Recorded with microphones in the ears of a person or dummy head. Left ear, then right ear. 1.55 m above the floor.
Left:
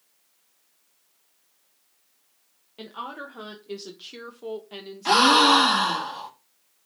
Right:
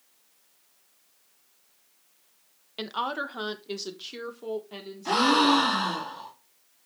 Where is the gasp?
55° left (ahead or behind), 1.7 m.